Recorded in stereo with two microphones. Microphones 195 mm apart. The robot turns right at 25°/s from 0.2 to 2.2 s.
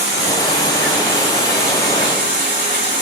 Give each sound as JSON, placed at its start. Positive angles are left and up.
{"t": 0.0, "sound": "running water", "azimuth_deg": -90, "distance_m": 3.0}